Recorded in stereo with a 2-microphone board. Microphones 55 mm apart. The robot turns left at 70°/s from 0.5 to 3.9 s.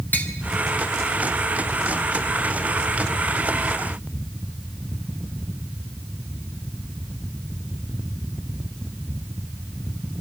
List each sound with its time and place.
0.1 s tapping: 30° left (ahead or behind), 1.7 m